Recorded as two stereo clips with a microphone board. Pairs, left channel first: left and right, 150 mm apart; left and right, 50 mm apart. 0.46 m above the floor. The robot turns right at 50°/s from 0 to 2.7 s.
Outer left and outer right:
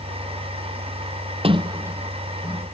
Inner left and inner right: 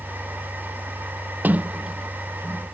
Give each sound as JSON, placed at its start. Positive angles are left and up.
{"t": 1.4, "sound": "a sliding door", "side_deg": -40}